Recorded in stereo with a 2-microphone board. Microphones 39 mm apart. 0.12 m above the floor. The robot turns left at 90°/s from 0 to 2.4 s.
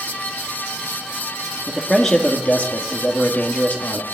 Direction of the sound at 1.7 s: 155° right.